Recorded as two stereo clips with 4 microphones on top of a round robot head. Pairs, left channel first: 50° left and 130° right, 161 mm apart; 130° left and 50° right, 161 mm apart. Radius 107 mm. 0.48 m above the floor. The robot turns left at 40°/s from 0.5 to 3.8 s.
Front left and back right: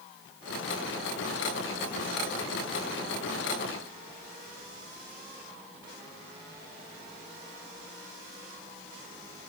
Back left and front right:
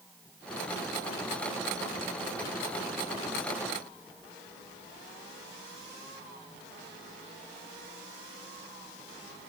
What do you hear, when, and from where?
Only background noise.